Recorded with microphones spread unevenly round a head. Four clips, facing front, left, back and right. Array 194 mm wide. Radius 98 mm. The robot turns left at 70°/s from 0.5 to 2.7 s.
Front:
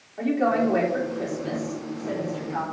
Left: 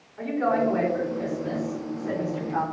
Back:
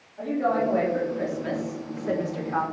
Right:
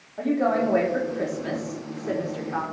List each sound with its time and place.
0.2 s a woman speaking: 60° right, 3.5 m; by 2.6 s 150° left, 3.5 m